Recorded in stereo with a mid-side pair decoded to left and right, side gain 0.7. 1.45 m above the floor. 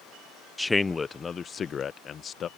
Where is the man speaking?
5° left; by 2.5 s 35° left.